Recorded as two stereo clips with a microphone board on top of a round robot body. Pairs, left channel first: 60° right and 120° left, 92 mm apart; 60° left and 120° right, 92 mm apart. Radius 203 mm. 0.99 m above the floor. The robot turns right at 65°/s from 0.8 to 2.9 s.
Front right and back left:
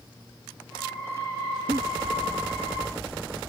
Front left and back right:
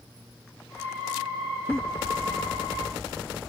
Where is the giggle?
130° left; by 1.8 s 135° left.